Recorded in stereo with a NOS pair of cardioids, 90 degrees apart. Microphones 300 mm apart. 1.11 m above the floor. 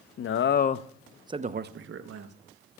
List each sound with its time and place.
0.2 s a man speaking: 50° left, 0.9 m; by 2.4 s 60° right, 1.1 m